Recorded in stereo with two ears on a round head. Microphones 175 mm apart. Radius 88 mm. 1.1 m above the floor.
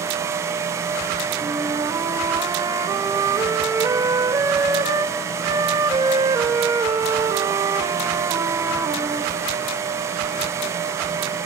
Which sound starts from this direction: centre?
A flute, at 1.4 s.